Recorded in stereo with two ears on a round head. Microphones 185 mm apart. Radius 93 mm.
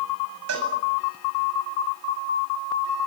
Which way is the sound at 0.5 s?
85° right.